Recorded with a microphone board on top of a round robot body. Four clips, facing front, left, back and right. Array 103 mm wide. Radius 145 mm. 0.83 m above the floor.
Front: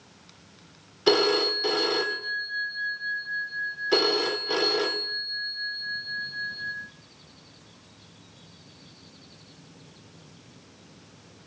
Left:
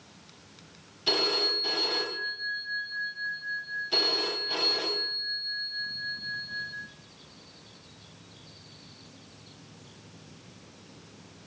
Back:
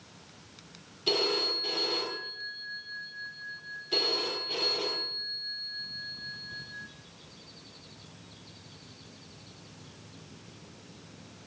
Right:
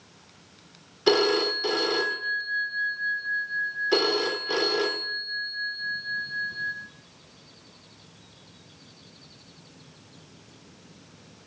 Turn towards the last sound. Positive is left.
turn(degrees=-45)